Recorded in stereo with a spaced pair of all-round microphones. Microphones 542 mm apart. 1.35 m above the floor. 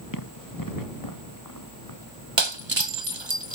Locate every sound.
0.1 s running footsteps: 35° left (ahead or behind)
2.4 s breaking glass: 55° right (ahead or behind)